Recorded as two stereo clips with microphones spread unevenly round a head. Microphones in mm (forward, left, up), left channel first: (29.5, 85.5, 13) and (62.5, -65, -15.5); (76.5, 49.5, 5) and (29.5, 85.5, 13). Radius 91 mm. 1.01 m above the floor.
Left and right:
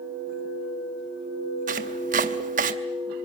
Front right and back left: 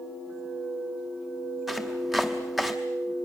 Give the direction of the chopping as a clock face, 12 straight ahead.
4 o'clock.